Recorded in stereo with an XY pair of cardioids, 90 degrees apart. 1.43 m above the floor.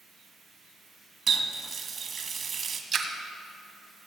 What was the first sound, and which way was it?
A running tap, 60° right.